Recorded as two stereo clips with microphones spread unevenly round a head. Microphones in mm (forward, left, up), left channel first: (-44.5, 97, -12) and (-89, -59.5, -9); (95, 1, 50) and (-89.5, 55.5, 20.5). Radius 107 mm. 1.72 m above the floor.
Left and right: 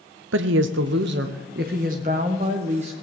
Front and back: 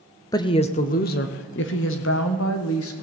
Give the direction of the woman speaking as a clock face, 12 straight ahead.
3 o'clock.